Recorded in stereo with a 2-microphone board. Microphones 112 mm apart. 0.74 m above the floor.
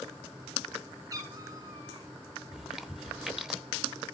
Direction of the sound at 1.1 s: 35° right (ahead or behind).